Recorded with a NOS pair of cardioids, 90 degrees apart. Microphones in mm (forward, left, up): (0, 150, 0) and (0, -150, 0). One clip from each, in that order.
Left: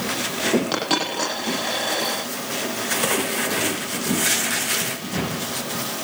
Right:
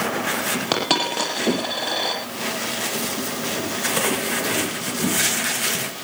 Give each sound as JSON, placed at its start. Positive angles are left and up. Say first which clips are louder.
{"t": 0.7, "sound": "a dropped coin", "louder": "right 2 dB", "azimuth_deg": -45, "distance_m": 9.0}